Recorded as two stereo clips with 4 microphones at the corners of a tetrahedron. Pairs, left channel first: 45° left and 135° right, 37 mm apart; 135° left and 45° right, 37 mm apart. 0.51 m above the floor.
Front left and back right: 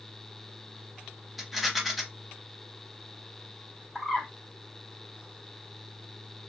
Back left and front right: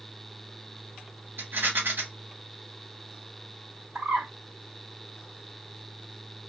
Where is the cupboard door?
I don't hear a cupboard door.